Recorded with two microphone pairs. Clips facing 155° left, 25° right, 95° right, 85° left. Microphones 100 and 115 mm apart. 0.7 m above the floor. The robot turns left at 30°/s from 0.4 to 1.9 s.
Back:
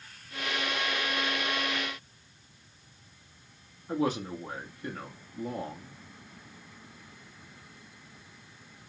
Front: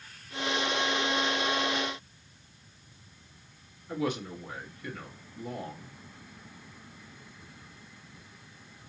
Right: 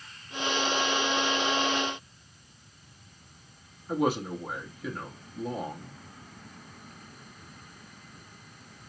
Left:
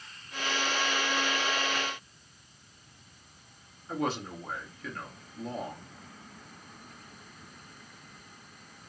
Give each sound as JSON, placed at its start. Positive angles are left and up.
{"t": 3.9, "sound": "a man speaking", "azimuth_deg": -170, "distance_m": 1.2}